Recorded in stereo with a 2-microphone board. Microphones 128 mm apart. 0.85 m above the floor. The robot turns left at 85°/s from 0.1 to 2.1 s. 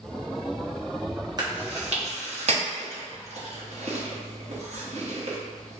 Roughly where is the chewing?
Right.